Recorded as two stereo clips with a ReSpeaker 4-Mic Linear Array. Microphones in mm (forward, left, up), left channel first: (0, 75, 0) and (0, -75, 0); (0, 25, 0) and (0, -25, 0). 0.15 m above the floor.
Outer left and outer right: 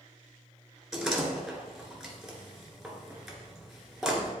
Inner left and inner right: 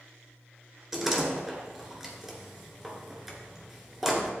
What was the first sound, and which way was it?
A door slam, centre (ahead or behind).